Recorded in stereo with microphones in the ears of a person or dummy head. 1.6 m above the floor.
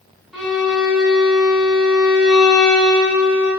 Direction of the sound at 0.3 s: Centre (ahead or behind).